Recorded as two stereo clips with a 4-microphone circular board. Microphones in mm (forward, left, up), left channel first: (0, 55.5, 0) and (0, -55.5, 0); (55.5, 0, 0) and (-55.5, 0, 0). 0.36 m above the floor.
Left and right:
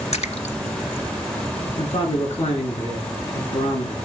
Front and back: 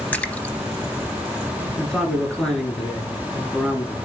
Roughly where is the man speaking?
Left.